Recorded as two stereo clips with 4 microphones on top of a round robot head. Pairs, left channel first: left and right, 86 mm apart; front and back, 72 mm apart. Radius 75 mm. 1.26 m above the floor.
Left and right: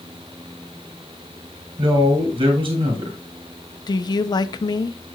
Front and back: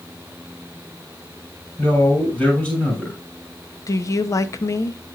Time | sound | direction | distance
1.8 | a man speaking | 75° right | 3 m
3.9 | a woman speaking | 50° left | 0.8 m